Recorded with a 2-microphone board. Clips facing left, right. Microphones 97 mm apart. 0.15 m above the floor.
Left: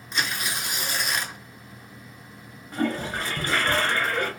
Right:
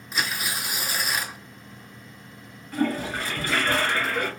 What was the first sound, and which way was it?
Tearing paper, 5° right (ahead or behind).